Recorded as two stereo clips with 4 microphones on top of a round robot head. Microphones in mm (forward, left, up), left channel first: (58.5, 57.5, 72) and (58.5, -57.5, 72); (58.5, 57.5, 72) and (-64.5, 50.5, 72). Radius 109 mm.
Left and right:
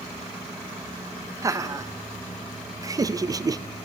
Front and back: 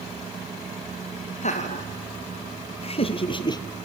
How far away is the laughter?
About 2.5 m.